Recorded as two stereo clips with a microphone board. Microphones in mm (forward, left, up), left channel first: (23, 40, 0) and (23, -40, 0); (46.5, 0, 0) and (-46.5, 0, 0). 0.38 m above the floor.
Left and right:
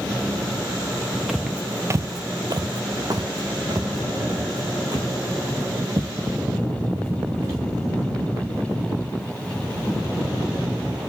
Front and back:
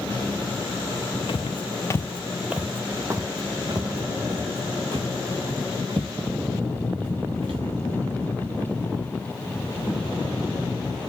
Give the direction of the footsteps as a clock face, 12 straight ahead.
12 o'clock.